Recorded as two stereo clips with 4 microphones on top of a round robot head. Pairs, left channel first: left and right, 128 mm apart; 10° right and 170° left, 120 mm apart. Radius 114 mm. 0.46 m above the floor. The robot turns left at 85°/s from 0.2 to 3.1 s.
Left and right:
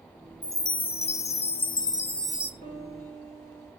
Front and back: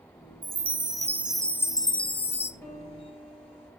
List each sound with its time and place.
0.4 s a chime: 160° left, 0.8 m; by 2.5 s 20° right, 0.8 m
2.6 s a piano: 65° left, 6.5 m; by 3.7 s 20° left, 6.5 m